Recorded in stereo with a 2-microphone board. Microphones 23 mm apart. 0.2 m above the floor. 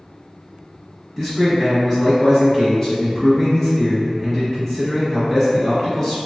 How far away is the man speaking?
About 1.1 m.